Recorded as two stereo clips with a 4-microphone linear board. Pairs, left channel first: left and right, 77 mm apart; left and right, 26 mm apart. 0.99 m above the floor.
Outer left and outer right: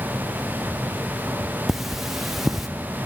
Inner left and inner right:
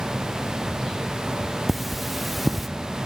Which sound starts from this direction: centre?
Cutlery clinking, at 1.7 s.